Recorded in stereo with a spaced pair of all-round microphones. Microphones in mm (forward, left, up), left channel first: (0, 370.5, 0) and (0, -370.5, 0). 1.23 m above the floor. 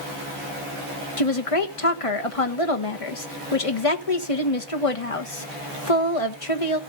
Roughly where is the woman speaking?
Left.